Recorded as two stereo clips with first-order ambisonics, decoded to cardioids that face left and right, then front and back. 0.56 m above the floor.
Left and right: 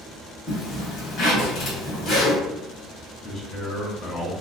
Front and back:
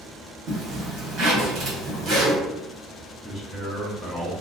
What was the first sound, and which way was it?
A zipper, 135° left.